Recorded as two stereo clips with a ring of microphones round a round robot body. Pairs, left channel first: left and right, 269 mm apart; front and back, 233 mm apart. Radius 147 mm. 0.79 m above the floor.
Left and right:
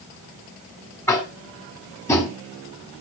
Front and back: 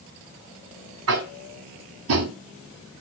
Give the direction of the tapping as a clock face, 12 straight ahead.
6 o'clock.